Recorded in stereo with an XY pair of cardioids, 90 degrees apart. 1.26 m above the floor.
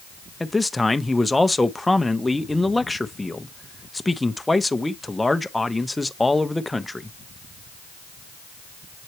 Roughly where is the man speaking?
Ahead.